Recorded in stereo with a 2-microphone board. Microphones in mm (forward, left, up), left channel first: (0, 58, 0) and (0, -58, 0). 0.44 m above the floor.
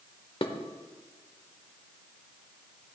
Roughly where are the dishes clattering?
Left.